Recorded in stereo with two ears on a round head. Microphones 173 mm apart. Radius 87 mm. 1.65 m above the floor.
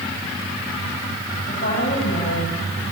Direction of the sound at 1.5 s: 50° left (ahead or behind).